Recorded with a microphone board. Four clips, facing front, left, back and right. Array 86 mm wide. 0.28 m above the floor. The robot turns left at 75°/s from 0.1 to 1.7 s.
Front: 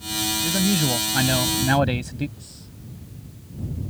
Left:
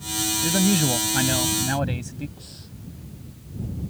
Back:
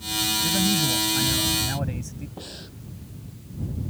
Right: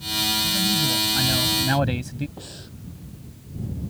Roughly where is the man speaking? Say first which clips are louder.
Left 8 dB, front 3 dB; left.